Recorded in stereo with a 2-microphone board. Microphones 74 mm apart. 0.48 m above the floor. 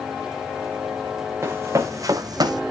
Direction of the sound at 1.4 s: 35° right (ahead or behind).